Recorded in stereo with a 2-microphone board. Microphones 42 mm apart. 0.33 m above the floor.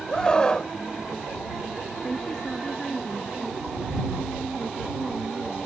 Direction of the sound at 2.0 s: 15° left (ahead or behind).